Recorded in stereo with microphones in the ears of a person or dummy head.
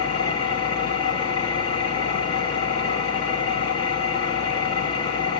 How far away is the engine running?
About 1.0 m.